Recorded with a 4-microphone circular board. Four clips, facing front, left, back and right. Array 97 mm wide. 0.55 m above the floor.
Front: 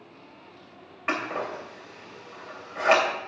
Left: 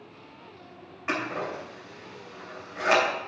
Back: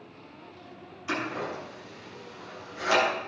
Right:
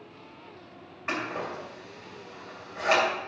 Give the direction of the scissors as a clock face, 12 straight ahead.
12 o'clock.